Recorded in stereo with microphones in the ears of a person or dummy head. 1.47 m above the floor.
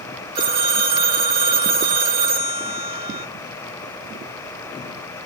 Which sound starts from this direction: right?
A phone ringing, at 0.3 s.